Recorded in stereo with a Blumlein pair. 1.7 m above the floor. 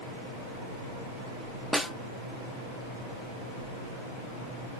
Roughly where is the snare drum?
Ahead.